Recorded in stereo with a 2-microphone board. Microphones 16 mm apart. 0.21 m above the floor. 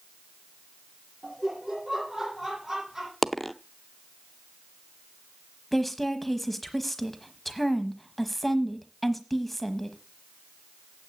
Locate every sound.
1.2 s laughter: 35° right (ahead or behind), 6.5 m
3.2 s a dropped coin: 5° left (ahead or behind), 0.6 m
5.7 s a woman speaking: 5° left (ahead or behind), 1.1 m